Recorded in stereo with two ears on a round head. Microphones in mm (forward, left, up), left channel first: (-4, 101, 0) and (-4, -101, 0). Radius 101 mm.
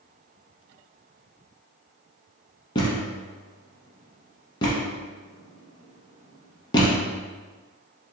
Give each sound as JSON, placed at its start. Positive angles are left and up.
{"t": 2.8, "sound": "a thud", "side_deg": 20, "distance_m": 1.0}